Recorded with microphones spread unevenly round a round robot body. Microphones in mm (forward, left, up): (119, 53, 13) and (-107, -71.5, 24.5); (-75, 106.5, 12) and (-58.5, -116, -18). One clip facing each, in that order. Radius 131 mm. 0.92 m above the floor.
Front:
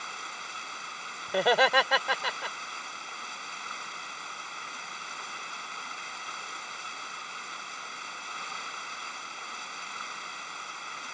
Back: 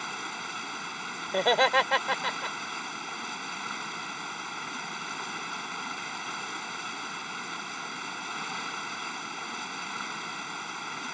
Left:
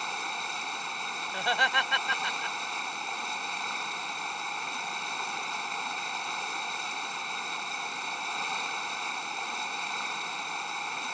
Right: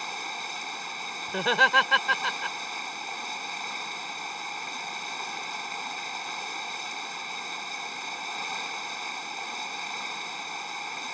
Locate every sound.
0.0 s running water: 175° right
1.3 s laughter: 60° right